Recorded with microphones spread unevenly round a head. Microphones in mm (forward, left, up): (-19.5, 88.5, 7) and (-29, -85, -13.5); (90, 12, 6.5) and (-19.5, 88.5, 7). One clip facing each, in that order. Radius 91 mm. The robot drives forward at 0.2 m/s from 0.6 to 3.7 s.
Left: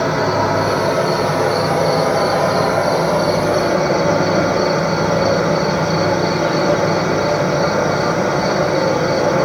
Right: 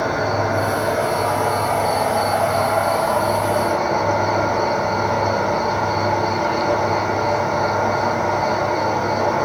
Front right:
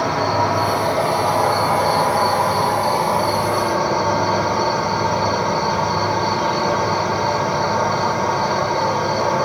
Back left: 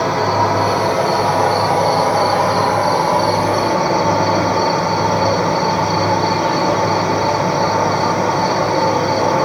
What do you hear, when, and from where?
0.0 s an insect: 105° left, 2 m; by 9.4 s 120° left, 2.5 m